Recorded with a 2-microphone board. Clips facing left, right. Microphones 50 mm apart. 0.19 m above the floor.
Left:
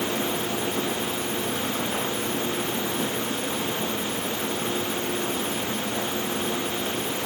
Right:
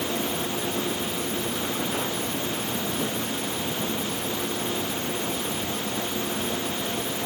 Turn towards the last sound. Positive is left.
No sound to turn to.